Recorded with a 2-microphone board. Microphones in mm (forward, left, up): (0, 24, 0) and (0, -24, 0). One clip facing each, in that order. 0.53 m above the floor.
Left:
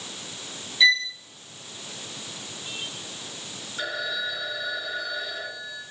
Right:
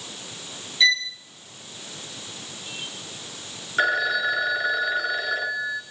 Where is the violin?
5° left (ahead or behind), 1.3 m.